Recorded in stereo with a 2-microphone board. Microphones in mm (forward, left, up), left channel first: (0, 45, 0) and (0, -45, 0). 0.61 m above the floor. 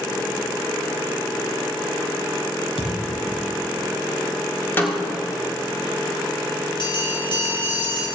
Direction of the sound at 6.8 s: 65° left (ahead or behind).